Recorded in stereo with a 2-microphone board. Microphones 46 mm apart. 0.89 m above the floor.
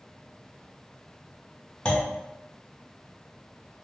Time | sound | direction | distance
1.9 | a clunk | 25° left (ahead or behind) | 0.5 m